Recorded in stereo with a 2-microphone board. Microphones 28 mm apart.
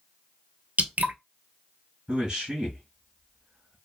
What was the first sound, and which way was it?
Dripping, 80° right.